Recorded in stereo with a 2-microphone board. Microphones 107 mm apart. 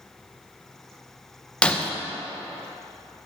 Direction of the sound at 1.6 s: 10° left (ahead or behind).